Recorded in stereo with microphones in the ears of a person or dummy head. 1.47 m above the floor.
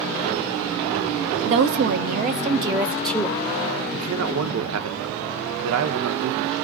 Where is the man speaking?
75° right (ahead or behind), 0.7 m.